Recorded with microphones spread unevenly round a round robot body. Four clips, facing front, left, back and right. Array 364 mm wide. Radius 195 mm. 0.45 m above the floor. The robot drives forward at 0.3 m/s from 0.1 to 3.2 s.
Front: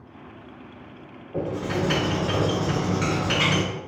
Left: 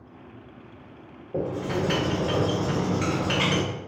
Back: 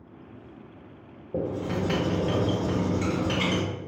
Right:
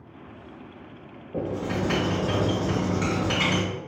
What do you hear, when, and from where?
1.3 s writing: 160° left, 1.3 m; by 3.6 s 170° left, 1.8 m